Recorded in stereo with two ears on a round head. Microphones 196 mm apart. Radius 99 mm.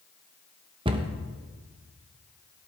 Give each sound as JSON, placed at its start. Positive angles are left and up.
{"t": 0.8, "sound": "a cupboard door", "side_deg": -25, "distance_m": 1.0}